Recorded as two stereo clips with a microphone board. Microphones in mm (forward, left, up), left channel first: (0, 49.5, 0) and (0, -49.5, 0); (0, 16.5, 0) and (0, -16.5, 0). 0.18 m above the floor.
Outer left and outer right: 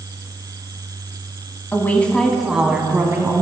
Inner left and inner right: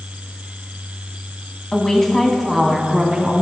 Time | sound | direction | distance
1.7 | a woman speaking | 20° left (ahead or behind) | 1.2 m